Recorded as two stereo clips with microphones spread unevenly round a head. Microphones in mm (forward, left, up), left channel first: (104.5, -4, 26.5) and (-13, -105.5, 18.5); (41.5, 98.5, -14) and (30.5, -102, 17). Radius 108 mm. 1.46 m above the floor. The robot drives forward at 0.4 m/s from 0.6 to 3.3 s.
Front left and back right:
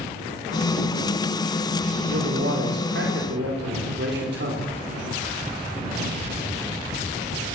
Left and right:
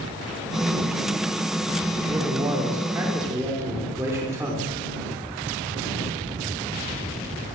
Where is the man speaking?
170° right, 4.5 m.